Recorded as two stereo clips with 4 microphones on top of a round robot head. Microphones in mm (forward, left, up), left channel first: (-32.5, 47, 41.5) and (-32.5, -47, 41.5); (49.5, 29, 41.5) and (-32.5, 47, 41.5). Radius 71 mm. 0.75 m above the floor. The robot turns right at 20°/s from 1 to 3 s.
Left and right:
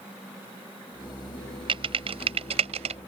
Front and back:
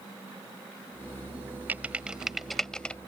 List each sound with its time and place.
1.7 s typing on a keyboard: 115° right; by 3.0 s 90° right